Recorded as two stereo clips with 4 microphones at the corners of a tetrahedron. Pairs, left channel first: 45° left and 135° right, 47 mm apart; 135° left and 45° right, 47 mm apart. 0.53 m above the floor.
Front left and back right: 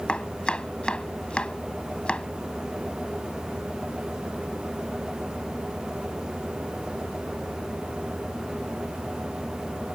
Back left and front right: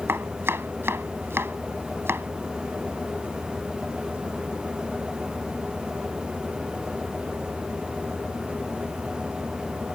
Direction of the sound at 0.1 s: 20° right.